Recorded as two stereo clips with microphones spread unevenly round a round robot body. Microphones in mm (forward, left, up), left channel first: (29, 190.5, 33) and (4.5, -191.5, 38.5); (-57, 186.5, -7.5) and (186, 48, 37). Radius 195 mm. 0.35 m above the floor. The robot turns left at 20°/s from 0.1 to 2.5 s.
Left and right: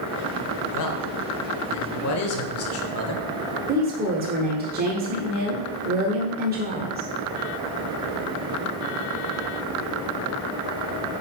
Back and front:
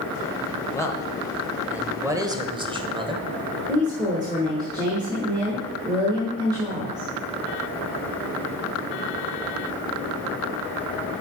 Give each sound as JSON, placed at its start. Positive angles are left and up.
{"t": 0.7, "sound": "a man speaking", "azimuth_deg": 85, "distance_m": 1.3}
{"t": 3.7, "sound": "a woman speaking", "azimuth_deg": -110, "distance_m": 1.3}